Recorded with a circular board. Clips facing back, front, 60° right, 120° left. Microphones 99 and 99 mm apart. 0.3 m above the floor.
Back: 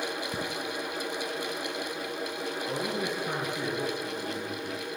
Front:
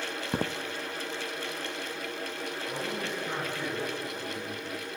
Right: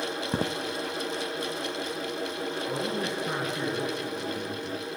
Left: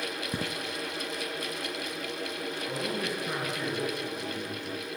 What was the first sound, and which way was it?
Footsteps, 25° right.